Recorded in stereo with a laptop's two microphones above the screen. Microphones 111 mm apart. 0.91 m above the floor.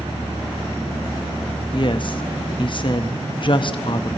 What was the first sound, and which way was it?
A woman speaking, 45° left (ahead or behind).